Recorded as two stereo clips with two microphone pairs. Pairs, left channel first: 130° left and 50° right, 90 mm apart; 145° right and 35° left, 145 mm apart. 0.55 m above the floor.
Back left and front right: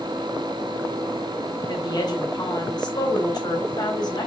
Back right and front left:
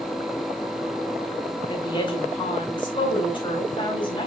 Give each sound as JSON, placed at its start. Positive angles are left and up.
{"t": 1.7, "sound": "a woman speaking", "azimuth_deg": 165, "distance_m": 3.5}